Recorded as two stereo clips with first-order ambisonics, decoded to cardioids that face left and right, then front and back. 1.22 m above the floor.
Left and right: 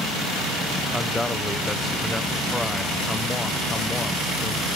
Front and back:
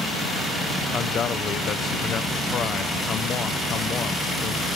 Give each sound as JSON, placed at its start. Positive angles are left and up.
{"t": 0.9, "sound": "a man speaking", "azimuth_deg": 15, "distance_m": 0.6}